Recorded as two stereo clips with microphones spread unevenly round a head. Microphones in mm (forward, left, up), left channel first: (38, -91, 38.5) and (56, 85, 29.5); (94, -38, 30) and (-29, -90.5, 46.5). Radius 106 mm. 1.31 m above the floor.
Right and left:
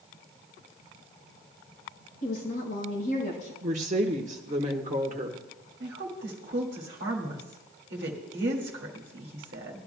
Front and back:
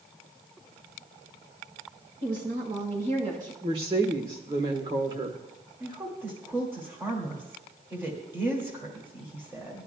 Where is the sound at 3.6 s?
140° left, 1.2 m.